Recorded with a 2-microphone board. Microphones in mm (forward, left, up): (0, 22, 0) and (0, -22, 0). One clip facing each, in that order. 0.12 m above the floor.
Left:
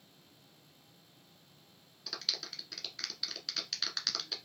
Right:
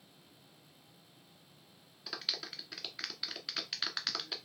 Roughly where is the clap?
Centre.